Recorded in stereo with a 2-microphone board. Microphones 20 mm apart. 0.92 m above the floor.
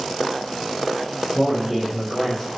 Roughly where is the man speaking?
Centre.